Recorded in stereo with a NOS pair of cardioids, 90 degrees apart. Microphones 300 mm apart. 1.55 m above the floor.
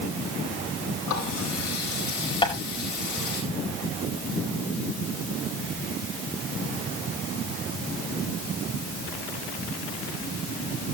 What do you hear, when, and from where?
1.1 s a running tap: 70° left, 9 m
2.4 s tapping: 15° left, 5 m